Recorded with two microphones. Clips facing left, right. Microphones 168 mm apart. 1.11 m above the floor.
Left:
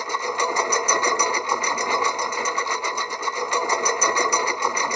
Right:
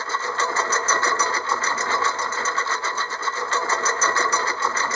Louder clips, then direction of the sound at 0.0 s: Left 1 dB; 15° left (ahead or behind).